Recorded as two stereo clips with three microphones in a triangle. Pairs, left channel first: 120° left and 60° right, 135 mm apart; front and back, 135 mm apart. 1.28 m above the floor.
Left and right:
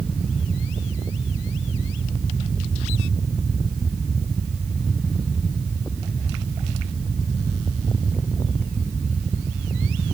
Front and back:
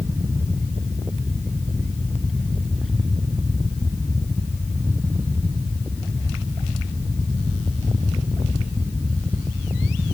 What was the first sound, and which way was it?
Only background noise.